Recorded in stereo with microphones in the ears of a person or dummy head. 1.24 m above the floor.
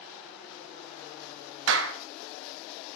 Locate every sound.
1.7 s a clap: 75° right (ahead or behind), 1.1 m